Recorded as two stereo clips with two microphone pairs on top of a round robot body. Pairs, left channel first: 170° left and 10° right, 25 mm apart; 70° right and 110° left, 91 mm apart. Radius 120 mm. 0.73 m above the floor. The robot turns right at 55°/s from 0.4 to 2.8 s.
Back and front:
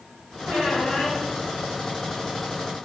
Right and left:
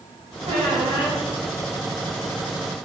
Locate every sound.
0.5 s a squeak: 130° left, 4 m; by 1.2 s 170° left, 4 m